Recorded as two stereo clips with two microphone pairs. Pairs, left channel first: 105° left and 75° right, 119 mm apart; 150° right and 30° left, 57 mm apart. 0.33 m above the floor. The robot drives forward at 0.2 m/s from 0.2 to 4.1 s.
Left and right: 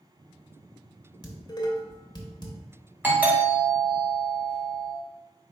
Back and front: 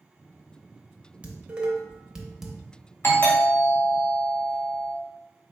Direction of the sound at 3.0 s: 145° right.